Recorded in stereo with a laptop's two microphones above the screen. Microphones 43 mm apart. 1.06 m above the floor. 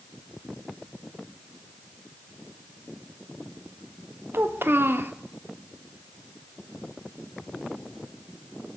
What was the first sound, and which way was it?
A child speaking, 70° right (ahead or behind).